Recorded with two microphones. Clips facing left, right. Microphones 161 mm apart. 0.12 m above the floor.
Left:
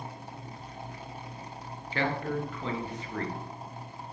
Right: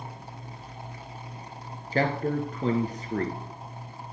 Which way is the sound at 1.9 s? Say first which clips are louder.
Right 5 dB; 40° right (ahead or behind).